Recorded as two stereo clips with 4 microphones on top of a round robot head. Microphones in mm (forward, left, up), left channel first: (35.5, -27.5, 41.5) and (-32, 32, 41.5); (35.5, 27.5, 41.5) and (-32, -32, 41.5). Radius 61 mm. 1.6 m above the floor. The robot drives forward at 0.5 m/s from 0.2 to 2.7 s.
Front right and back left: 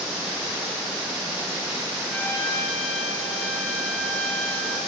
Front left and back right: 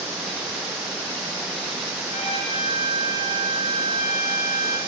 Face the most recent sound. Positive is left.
turn(degrees=35)